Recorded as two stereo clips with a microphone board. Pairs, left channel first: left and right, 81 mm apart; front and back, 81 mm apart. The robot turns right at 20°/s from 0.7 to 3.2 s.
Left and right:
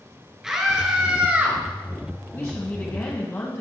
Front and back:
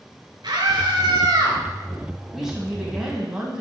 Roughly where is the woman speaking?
Left.